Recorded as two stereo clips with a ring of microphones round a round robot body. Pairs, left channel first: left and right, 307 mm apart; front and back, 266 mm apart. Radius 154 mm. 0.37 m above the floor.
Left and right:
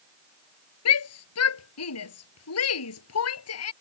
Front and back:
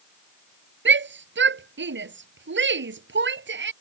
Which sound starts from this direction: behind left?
A shout, at 0.8 s.